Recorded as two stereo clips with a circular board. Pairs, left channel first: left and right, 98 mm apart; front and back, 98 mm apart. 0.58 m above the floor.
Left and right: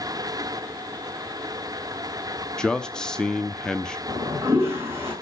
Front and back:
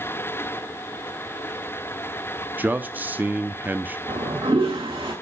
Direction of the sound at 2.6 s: 155° left.